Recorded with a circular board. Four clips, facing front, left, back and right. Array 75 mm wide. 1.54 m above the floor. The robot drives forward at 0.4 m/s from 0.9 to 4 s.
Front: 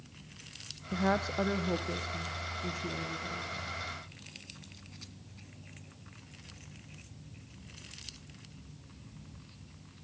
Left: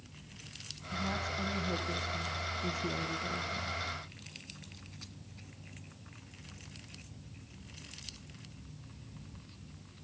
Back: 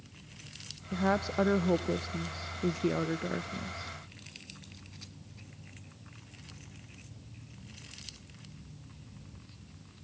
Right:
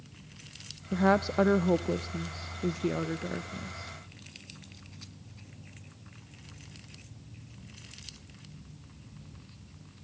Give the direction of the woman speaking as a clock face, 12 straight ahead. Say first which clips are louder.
Right 12 dB, back 1 dB; 3 o'clock.